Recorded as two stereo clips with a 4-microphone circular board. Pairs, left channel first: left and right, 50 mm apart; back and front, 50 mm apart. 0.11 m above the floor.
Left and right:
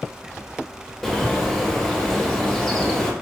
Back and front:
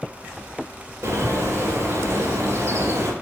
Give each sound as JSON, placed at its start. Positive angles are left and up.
{"t": 1.0, "sound": "a bird", "azimuth_deg": 5, "distance_m": 2.0}